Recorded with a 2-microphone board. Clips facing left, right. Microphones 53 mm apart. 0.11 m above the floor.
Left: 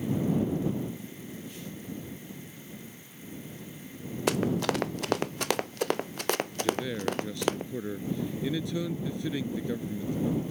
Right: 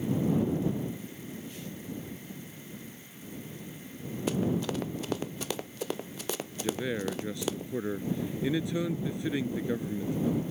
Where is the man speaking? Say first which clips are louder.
Right 1 dB; 20° right (ahead or behind).